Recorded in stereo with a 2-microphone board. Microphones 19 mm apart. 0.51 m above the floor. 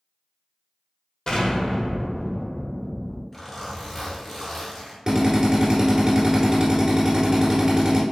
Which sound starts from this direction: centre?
A zipper, at 3.3 s.